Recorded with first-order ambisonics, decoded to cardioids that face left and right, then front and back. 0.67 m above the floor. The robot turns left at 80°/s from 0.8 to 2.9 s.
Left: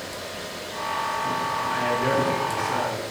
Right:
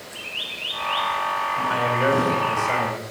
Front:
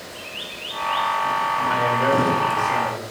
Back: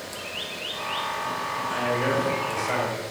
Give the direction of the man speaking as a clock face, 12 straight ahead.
1 o'clock.